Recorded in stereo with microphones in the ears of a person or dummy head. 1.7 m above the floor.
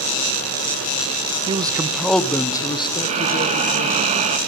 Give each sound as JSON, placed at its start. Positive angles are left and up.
{"t": 1.5, "sound": "a man speaking", "side_deg": -25, "distance_m": 1.2}
{"t": 3.0, "sound": "breathing", "side_deg": -35, "distance_m": 2.5}